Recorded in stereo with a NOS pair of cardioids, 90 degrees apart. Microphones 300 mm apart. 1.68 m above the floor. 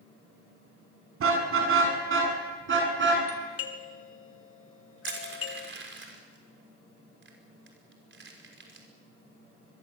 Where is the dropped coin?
I don't hear a dropped coin.